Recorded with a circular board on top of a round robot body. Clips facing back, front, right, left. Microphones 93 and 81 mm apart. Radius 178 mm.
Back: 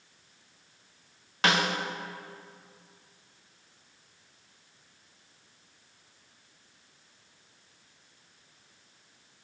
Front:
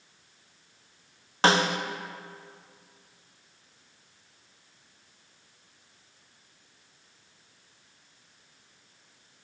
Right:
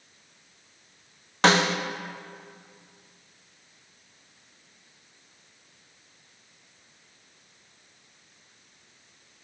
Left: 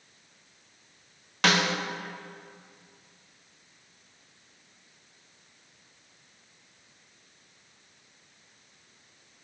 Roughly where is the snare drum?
Ahead right.